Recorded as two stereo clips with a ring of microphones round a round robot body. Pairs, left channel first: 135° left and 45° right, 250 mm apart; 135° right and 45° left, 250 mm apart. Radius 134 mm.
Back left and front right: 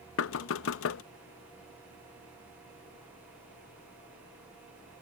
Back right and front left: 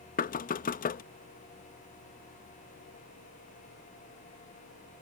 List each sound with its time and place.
0.2 s knocking: 170° left